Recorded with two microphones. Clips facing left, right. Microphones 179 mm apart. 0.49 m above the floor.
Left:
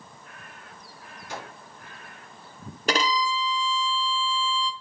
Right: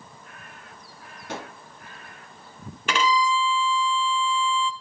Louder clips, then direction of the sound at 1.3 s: Right 3 dB; 70° right (ahead or behind).